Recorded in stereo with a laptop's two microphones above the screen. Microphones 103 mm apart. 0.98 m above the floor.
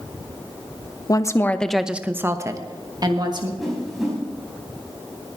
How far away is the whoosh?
About 5 m.